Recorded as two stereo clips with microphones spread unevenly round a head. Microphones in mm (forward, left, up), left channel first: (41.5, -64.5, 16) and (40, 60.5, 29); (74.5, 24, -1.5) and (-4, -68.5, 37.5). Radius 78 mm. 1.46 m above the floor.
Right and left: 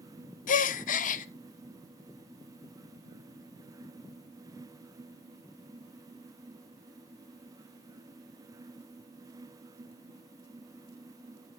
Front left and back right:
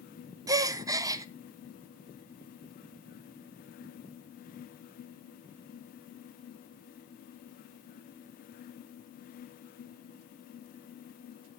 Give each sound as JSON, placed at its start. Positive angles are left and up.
{"t": 0.5, "sound": "a gasp", "azimuth_deg": -70, "distance_m": 0.7}